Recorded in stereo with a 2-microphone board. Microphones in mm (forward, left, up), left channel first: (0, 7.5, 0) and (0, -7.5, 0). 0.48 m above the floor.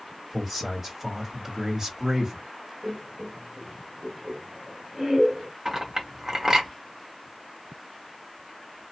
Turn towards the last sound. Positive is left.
turn(degrees=-35)  # may be behind; listen again after turning